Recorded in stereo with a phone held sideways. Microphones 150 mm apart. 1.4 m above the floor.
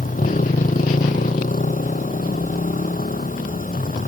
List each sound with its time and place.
0.0 s a motorcycle: 65° left (ahead or behind)